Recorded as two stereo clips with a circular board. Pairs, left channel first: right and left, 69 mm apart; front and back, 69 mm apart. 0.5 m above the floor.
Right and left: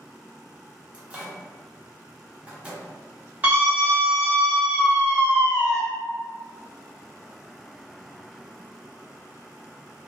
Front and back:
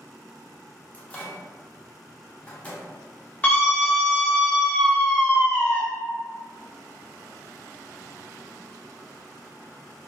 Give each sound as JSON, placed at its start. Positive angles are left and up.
{"t": 0.9, "sound": "a microwave", "azimuth_deg": 40, "distance_m": 0.6}
{"t": 3.4, "sound": "a scream", "azimuth_deg": 50, "distance_m": 0.9}